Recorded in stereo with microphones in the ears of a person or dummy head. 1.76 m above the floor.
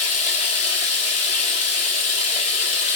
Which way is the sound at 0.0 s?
35° left (ahead or behind).